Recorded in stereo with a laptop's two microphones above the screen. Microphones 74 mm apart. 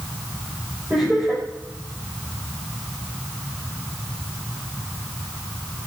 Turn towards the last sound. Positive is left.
turn(degrees=-15)  # may be behind; listen again after turning